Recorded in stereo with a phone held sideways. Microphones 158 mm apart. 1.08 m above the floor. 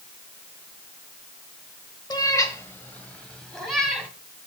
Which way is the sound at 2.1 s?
25° left (ahead or behind).